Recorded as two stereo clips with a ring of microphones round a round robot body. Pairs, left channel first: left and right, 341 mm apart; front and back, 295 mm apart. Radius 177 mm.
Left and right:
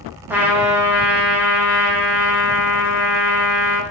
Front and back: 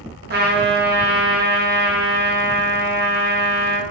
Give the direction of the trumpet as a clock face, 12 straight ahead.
6 o'clock.